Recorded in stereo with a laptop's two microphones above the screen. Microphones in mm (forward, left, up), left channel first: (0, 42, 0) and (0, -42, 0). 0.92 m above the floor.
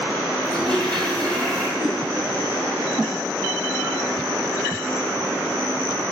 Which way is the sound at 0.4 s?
60° right (ahead or behind).